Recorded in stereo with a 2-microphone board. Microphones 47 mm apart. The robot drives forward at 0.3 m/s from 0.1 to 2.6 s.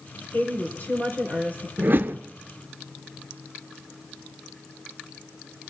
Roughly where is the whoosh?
Right.